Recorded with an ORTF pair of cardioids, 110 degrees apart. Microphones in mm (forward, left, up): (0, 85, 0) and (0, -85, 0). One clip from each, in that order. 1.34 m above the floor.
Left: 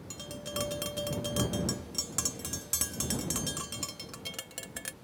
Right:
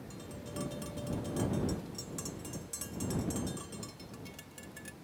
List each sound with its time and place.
0.1 s tapping: 65° left